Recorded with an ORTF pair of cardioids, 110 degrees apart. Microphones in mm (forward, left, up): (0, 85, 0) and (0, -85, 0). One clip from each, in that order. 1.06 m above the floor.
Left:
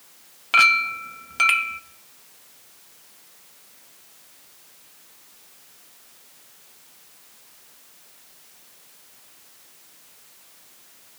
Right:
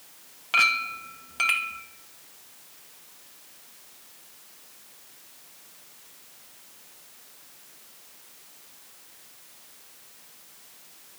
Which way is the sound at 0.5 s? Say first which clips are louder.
Left 6 dB; 25° left.